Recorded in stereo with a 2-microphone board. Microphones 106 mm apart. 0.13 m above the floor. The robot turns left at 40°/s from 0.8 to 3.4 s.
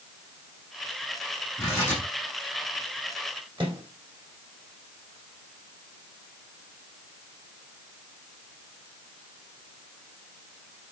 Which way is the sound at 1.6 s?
25° left (ahead or behind).